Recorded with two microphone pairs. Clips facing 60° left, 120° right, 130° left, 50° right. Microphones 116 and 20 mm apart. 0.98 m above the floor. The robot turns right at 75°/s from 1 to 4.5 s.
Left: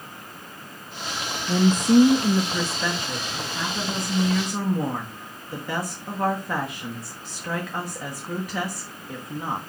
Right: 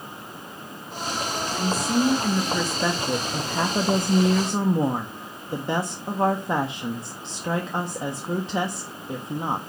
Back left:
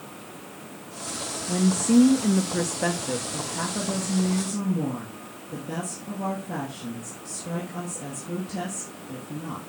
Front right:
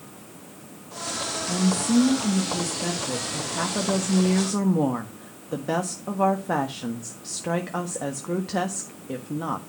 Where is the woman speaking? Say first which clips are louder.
Left 9 dB, back left 2 dB; 75° left, 1.4 m; by 9.6 s 60° right, 1.4 m.